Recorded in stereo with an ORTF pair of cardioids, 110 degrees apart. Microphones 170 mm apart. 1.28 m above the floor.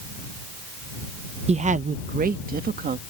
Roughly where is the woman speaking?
Ahead right.